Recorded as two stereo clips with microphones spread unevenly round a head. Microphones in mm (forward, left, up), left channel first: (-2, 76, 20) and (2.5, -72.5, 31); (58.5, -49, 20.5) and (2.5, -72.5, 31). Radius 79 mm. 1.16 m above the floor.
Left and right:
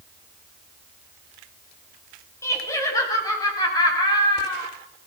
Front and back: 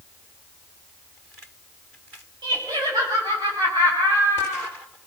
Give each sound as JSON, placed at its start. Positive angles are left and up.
{"t": 2.4, "sound": "laughter", "azimuth_deg": 165, "distance_m": 7.0}